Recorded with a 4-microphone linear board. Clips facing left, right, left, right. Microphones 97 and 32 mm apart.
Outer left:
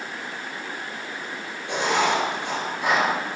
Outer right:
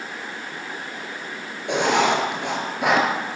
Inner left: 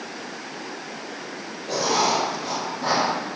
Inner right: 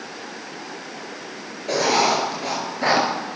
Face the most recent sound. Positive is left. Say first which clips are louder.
# outer right 3 dB, inner right 3 dB
turn(degrees=-65)  # may be behind; listen again after turning